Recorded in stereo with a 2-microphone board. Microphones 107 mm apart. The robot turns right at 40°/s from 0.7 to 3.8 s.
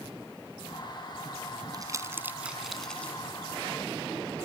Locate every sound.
1.7 s crumpling: 40° right (ahead or behind); by 3.1 s 15° left (ahead or behind)